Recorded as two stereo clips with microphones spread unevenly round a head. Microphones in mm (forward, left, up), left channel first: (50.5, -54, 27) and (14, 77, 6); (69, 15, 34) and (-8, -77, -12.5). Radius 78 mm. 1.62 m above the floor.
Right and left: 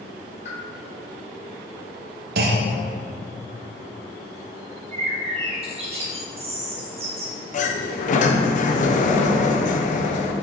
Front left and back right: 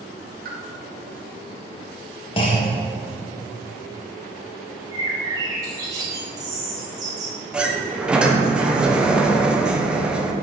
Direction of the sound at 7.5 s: 40° right.